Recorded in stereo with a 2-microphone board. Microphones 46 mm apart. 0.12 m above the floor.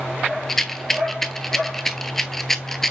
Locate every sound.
0.5 s a rattle: 10° left (ahead or behind), 0.6 m